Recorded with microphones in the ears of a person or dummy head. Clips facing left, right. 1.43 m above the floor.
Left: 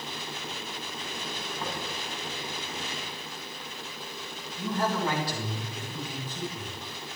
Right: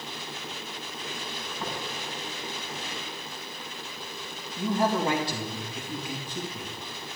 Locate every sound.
1.6 s tapping: 10° right (ahead or behind), 6.5 m
4.6 s a man speaking: 20° right (ahead or behind), 2.5 m